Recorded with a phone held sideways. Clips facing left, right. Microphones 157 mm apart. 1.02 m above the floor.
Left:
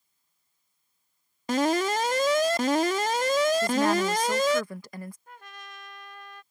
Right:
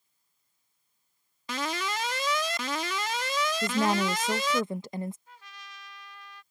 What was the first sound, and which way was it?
An alarm, 45° left (ahead or behind).